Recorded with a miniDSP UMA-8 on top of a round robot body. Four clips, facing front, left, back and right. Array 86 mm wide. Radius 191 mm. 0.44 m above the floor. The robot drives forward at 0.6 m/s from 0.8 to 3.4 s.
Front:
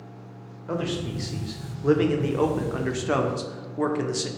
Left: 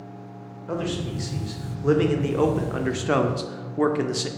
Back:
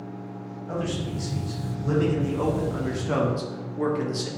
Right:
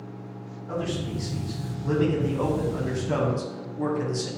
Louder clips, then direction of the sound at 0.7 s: Left 2 dB, front 1 dB; 35° left.